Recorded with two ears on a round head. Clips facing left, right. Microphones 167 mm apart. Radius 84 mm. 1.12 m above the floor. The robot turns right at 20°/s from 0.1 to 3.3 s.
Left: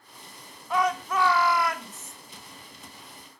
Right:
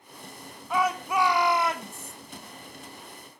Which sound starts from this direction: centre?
A shout, at 0.7 s.